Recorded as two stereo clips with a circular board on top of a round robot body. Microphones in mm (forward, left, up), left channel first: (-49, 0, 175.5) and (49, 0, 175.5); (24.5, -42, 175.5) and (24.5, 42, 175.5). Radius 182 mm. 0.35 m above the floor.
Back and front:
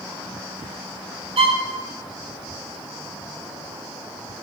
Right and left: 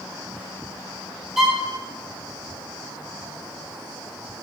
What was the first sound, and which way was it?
A violin, straight ahead.